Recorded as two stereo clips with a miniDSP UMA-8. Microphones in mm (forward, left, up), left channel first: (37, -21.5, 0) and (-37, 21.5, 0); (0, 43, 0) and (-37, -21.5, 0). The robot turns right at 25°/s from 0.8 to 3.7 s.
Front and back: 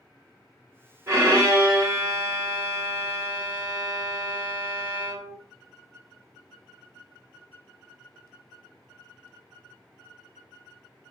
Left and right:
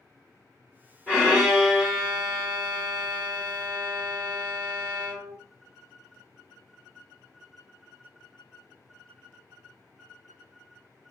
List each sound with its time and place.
1.1 s a violin: 115° left, 1.5 m; by 5.3 s 175° right, 1.5 m